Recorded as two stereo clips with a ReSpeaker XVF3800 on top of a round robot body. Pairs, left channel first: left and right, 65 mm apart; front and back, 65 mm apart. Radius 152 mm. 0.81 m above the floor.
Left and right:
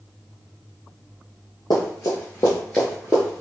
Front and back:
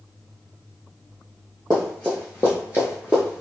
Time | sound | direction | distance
1.7 | running footsteps | 85° left | 1.0 m